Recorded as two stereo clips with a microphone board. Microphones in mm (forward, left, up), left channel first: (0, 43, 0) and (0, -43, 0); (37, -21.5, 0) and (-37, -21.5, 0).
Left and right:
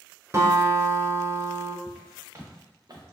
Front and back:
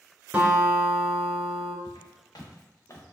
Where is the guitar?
120° right, 0.7 m.